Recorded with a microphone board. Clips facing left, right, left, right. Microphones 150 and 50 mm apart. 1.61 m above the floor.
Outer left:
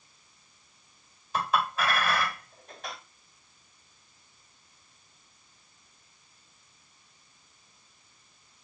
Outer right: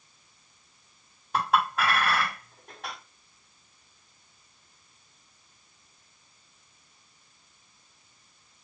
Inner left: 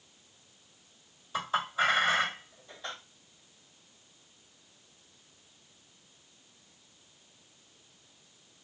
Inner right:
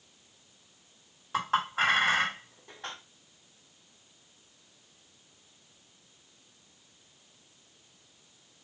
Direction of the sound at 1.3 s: 60° right (ahead or behind).